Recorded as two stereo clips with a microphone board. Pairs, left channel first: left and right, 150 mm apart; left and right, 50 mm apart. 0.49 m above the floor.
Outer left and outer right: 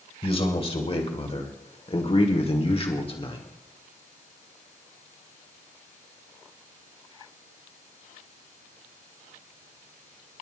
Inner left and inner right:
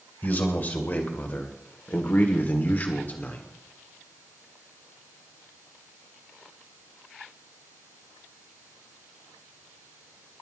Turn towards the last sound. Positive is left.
turn(degrees=35)  # may be behind; listen again after turning